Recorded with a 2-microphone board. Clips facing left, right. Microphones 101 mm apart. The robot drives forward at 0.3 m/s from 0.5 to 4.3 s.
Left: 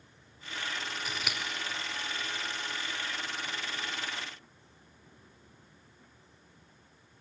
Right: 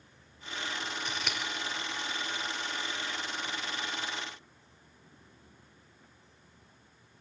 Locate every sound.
1.1 s scissors: 5° left (ahead or behind), 1.7 m